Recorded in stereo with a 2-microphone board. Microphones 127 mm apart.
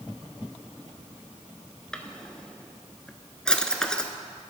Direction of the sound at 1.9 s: 5° left (ahead or behind).